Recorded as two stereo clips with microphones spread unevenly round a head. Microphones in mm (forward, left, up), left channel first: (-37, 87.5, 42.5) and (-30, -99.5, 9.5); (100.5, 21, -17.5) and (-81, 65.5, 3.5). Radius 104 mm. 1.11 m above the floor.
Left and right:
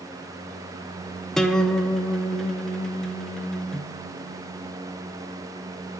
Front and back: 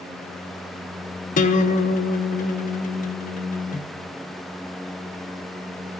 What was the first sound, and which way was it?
A guitar, 5° right.